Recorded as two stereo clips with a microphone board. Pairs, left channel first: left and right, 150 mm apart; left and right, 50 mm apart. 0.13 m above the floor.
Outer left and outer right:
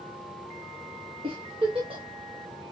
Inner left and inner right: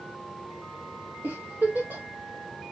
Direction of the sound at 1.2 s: 35° right (ahead or behind).